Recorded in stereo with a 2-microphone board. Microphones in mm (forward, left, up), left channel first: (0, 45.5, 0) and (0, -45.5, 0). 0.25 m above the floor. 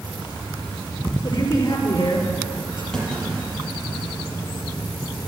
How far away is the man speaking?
About 6 m.